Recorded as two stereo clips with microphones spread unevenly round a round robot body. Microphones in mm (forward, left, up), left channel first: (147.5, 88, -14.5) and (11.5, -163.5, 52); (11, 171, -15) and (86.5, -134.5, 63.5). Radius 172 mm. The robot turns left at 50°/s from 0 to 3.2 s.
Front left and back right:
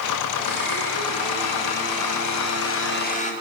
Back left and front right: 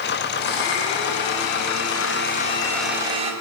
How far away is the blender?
About 5.5 m.